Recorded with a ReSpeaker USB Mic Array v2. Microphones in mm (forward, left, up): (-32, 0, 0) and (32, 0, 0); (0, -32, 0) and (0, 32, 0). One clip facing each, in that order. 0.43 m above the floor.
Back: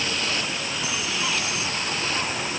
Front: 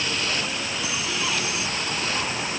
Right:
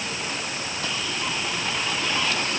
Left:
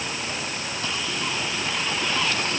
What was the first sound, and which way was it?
Only background noise.